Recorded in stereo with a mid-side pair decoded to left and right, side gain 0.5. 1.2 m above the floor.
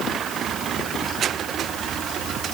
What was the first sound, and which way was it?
Only background noise.